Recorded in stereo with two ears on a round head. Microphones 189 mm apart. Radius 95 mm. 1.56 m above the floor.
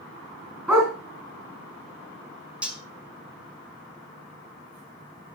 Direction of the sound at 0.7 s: 10° right (ahead or behind).